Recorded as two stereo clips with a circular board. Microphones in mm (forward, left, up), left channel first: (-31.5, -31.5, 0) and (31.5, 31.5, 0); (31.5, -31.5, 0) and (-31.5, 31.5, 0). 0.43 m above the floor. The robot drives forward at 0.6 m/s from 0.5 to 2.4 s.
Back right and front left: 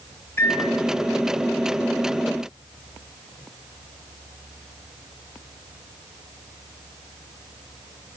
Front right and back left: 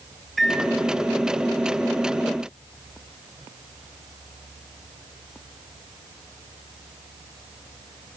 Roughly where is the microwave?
Behind right.